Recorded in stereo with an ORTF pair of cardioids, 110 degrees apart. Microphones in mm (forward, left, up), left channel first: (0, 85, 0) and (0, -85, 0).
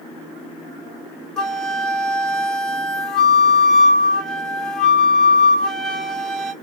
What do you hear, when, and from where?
1.4 s a flute: 5° left, 1.1 m